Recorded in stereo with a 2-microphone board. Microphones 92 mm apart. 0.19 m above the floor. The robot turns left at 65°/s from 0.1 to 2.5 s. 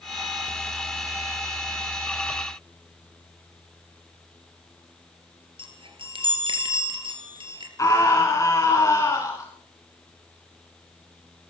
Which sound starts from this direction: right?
A chime, at 5.6 s.